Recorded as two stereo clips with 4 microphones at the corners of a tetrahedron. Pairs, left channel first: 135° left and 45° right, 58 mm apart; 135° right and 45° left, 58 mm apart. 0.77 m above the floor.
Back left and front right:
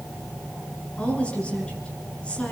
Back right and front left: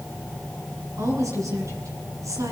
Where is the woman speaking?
65° left, 9.5 m.